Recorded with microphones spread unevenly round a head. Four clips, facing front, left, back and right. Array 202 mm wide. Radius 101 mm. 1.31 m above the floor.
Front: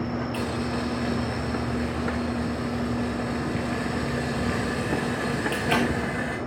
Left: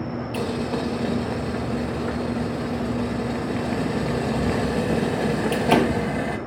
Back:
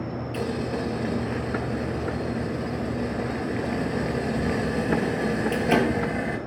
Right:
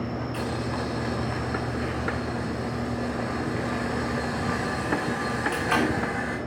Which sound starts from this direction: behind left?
Boiling, at 0.3 s.